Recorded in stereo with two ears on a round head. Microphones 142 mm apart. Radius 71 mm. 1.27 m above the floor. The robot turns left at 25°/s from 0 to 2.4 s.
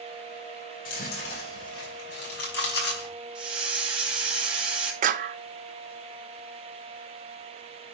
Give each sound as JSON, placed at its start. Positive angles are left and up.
{"t": 0.8, "sound": "chewing", "side_deg": 60, "distance_m": 5.5}
{"t": 3.4, "sound": "a hiss", "side_deg": -5, "distance_m": 2.5}
{"t": 5.0, "sound": "a clap", "side_deg": -50, "distance_m": 0.7}